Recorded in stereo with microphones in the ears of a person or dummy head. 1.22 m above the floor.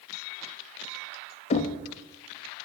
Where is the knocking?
35° left (ahead or behind), 0.5 m.